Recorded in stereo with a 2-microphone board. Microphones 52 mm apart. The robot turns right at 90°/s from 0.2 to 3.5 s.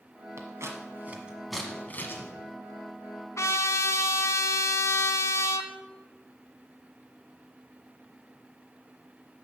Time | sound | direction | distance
0.4 | scissors | 60° right (ahead or behind) | 1.2 m
3.4 | a trumpet | 75° left (ahead or behind) | 0.6 m